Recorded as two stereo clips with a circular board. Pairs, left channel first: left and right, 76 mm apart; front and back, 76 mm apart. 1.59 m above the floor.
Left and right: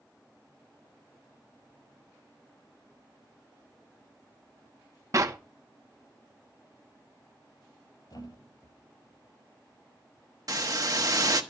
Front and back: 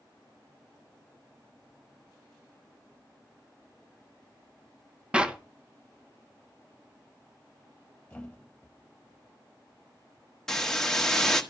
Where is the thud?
75° left, 3 m.